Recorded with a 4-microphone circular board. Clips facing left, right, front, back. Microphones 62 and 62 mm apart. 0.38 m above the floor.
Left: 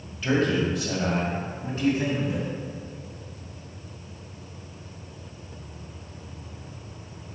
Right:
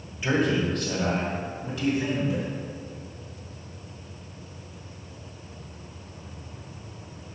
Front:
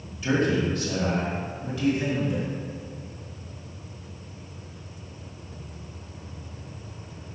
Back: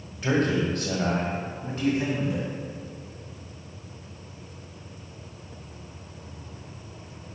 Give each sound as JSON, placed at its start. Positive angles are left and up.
{"t": 0.2, "sound": "a man speaking", "azimuth_deg": -165, "distance_m": 1.6}